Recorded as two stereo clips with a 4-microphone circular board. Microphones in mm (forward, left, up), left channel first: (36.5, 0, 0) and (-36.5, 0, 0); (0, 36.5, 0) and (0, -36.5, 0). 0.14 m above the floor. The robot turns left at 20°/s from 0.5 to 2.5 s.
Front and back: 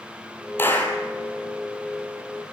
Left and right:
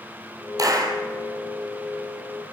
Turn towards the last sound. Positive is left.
turn(degrees=-95)